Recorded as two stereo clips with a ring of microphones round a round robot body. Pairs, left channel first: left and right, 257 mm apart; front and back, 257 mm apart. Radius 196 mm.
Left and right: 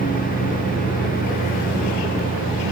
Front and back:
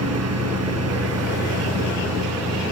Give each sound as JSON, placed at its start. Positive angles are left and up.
{"t": 0.0, "sound": "a lawn mower", "azimuth_deg": 160}